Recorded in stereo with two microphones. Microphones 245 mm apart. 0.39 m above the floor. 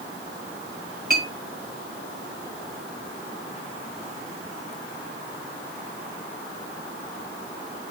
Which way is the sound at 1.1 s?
45° right (ahead or behind).